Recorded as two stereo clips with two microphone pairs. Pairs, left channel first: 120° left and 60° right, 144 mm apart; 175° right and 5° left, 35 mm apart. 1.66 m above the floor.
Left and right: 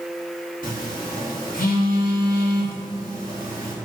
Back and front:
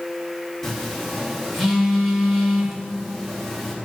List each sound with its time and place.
0.6 s a phone buzzing: 105° left, 2.5 m